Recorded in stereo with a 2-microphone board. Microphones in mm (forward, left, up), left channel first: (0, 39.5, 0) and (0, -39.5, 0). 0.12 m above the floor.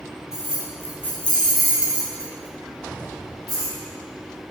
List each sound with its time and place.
0.3 s keys jangling: 40° left (ahead or behind), 1.2 m; by 3.8 s 60° right (ahead or behind), 1.6 m